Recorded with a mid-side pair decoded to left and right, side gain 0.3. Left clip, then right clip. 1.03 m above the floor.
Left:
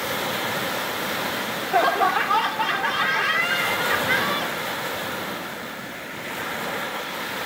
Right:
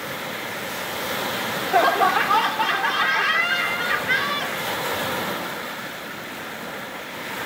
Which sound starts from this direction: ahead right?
Laughter, at 1.4 s.